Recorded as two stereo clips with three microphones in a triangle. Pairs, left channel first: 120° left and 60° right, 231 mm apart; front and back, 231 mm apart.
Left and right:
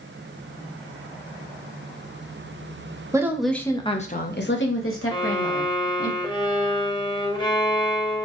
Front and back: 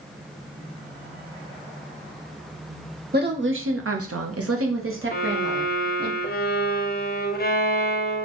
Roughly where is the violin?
Ahead left.